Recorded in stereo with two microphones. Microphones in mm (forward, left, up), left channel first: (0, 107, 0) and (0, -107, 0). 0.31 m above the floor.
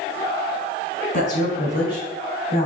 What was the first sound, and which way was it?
A woman speaking, 50° left (ahead or behind).